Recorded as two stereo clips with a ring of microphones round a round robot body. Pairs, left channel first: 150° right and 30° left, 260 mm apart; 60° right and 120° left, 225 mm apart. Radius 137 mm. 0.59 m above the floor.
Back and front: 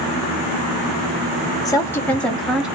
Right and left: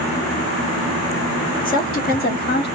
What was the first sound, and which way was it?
A woman speaking, 85° right.